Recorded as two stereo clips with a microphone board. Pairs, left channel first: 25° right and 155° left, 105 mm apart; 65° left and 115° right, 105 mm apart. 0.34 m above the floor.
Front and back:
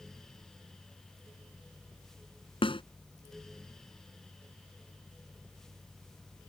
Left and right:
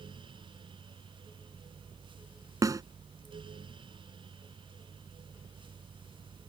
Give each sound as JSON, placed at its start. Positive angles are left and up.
{"t": 2.6, "sound": "a snare drum", "azimuth_deg": -55}